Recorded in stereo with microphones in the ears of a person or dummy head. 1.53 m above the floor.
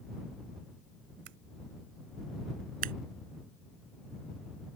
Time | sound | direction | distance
1.2 | scissors | 65° right (ahead or behind) | ?
2.8 | scissors | 45° right (ahead or behind) | ?